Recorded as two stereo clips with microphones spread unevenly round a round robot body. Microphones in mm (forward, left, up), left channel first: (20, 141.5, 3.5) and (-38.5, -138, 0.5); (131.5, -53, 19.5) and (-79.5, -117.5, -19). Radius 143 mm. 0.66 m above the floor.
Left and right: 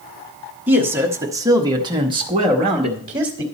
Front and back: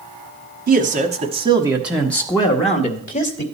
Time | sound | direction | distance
0.7 | a man speaking | 175° left | 1.2 m